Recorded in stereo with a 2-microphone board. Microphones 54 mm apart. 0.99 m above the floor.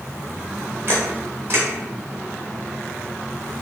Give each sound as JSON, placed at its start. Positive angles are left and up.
{"t": 0.9, "sound": "a camera shutter", "side_deg": -45, "distance_m": 0.9}